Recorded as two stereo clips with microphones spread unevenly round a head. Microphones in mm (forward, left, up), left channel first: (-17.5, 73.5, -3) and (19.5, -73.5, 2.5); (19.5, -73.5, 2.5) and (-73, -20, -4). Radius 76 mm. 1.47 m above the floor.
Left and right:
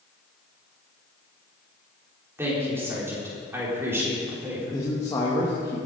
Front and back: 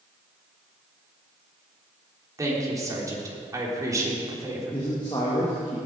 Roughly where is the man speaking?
Ahead left.